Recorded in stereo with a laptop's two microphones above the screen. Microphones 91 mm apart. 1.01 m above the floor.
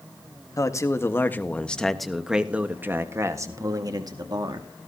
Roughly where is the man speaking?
Left.